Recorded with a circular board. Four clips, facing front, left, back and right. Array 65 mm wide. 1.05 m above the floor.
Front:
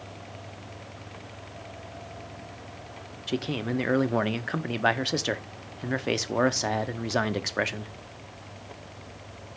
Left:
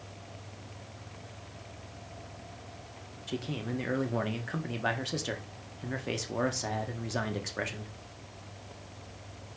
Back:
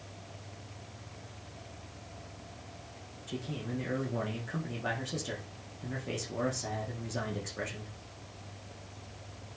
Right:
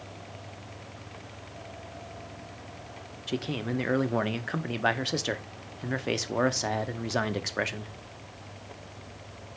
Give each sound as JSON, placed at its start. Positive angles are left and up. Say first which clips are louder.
{"t": 3.3, "sound": "a man speaking", "louder": "right 4 dB, front 9 dB", "azimuth_deg": -20, "distance_m": 0.7}